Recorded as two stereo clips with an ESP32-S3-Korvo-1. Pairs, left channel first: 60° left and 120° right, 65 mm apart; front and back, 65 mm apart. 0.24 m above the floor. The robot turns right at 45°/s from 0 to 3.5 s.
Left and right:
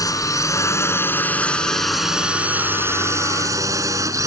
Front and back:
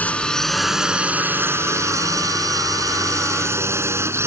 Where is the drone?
65° left; by 4.3 s 140° right.